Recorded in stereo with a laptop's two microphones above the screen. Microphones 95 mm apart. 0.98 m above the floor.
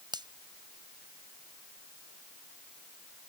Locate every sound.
0.1 s a finger snap: 55° right (ahead or behind)